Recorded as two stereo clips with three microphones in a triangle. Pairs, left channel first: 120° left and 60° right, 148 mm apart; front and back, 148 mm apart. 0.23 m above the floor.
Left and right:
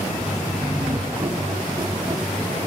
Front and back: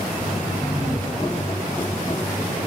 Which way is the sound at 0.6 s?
20° left.